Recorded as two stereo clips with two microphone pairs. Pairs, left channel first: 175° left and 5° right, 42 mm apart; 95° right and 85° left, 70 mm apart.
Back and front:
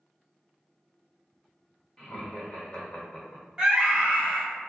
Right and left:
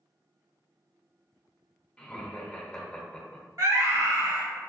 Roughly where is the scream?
Ahead left.